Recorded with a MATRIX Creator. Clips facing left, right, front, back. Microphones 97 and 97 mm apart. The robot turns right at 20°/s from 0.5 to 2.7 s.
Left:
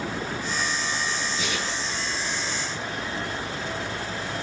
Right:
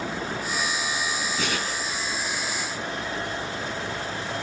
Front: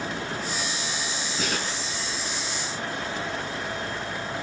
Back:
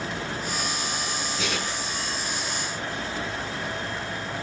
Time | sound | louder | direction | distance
1.4 | tearing paper | right 1 dB, front 2 dB | 45° right | 6.5 m